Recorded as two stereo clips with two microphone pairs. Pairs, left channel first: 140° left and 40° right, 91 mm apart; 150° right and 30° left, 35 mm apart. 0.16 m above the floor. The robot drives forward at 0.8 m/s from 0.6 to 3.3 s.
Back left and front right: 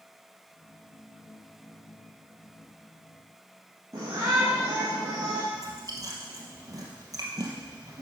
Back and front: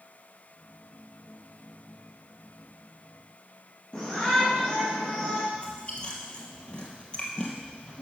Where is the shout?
90° right, 3 m.